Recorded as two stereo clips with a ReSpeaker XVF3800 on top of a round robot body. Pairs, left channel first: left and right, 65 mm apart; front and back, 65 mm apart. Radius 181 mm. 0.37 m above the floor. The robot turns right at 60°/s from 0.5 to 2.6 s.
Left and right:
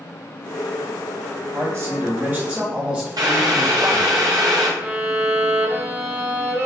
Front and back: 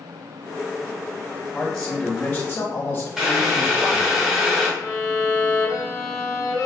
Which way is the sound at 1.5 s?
105° right.